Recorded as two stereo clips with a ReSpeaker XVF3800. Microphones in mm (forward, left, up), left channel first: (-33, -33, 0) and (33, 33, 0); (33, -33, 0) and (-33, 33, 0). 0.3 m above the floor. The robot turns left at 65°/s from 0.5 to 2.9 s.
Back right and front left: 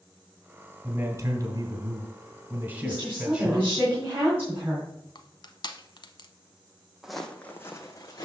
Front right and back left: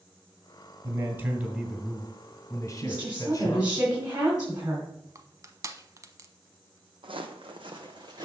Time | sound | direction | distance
0.8 | a man speaking | 100° left | 1.8 m
2.8 | a woman speaking | 115° left | 2.5 m
5.2 | crushing | 170° right | 0.7 m
7.0 | footsteps | 130° left | 0.7 m